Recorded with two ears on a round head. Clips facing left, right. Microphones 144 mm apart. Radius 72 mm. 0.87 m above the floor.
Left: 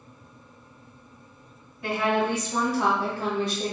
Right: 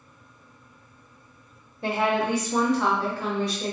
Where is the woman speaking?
25° right (ahead or behind), 1.0 m; by 3.7 s 30° left (ahead or behind), 1.2 m.